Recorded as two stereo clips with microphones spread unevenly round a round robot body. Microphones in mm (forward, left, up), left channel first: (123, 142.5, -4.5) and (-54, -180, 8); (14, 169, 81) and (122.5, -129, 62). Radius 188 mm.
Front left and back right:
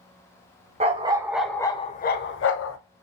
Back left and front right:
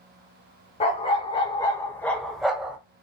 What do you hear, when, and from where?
0.8 s a dog barking: 175° left, 0.8 m; by 2.8 s 20° left, 0.8 m